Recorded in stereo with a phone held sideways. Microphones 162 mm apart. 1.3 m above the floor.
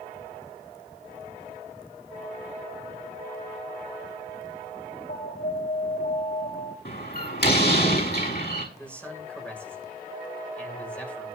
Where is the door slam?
75° left (ahead or behind), 6 m.